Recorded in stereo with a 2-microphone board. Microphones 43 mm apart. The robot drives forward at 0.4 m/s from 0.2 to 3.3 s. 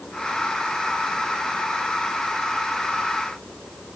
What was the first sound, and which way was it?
Only background noise.